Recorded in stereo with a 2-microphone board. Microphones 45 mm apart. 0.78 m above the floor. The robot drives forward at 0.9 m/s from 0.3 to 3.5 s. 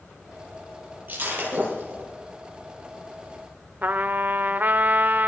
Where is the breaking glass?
45° right (ahead or behind), 8.5 m; by 2.1 s 40° right (ahead or behind), 9 m.